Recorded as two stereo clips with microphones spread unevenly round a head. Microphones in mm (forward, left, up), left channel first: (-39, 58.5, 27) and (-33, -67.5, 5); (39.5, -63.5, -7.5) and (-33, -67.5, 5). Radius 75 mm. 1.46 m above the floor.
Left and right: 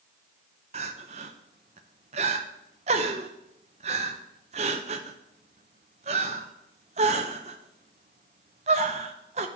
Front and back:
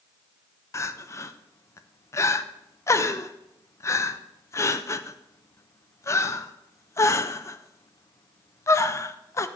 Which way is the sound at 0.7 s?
40° right.